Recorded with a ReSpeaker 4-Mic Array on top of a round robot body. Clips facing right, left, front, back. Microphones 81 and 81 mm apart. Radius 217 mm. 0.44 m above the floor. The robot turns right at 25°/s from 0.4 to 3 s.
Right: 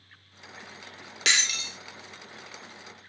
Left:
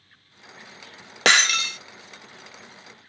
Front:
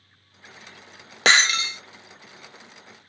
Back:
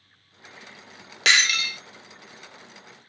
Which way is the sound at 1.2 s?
55° left.